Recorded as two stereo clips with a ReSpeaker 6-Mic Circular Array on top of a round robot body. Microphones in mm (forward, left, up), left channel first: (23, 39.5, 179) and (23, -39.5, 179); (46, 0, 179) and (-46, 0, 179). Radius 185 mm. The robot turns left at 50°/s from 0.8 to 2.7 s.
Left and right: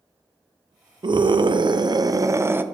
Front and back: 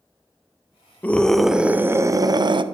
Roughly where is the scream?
Right.